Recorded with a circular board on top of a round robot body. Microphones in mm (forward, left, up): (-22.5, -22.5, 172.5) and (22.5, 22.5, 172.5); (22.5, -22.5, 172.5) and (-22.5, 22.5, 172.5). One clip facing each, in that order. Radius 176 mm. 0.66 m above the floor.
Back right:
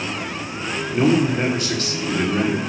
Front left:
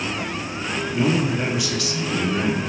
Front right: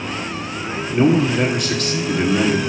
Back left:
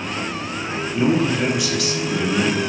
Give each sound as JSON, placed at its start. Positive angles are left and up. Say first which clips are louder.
{"t": 0.9, "sound": "a man speaking", "louder": "back right 4 dB, front right 3 dB", "azimuth_deg": -90, "distance_m": 2.0}